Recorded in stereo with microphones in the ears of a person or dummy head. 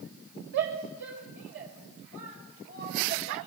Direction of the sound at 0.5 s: 70° right (ahead or behind).